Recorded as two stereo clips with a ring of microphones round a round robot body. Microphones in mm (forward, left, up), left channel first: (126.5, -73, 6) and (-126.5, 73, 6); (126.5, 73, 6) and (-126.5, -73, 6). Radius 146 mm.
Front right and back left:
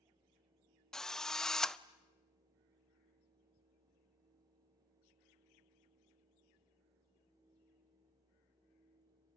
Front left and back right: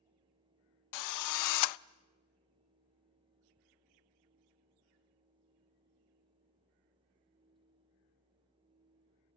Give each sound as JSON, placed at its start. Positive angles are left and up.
{"t": 0.9, "sound": "a drill", "azimuth_deg": 60, "distance_m": 0.5}